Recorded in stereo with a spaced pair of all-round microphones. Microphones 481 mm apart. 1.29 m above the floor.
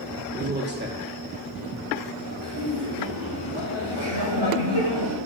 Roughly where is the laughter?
Right.